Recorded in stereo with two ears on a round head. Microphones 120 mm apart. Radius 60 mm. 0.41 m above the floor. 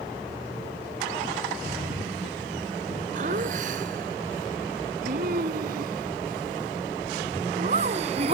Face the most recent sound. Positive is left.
turn(degrees=-45)  # may be behind; listen again after turning